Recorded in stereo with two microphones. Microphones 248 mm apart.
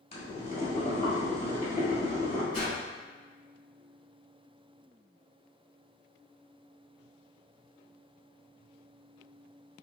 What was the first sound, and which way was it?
Boiling, 25° left (ahead or behind).